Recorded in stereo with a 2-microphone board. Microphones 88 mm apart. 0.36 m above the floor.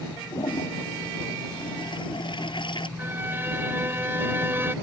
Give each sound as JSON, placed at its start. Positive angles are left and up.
{"t": 0.3, "sound": "a toilet flushing", "side_deg": 65}
{"t": 3.0, "sound": "a violin", "side_deg": -25}